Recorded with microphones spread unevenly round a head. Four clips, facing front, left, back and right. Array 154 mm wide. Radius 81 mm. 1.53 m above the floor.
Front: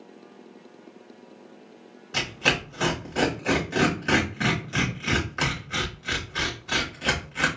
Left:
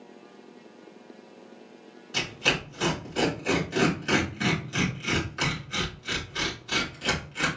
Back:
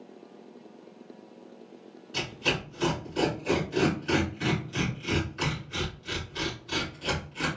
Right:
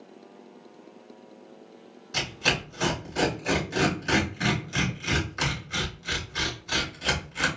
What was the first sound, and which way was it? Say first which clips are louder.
Tearing paper: even, front 4 dB; 5° right.